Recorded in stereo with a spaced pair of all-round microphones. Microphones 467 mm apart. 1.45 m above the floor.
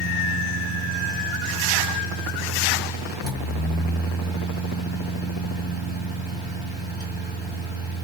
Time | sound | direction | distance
0.0 | a fan | 50° left (ahead or behind) | 1.5 m